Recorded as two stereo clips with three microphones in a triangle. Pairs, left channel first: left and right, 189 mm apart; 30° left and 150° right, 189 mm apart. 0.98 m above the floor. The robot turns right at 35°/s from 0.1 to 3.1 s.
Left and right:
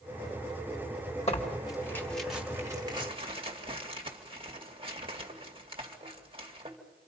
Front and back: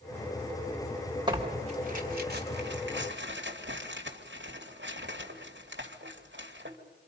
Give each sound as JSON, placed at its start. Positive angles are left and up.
{"t": 1.3, "sound": "tearing paper", "azimuth_deg": 145, "distance_m": 2.0}